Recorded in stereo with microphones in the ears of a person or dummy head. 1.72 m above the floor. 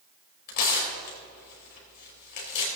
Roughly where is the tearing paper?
Left.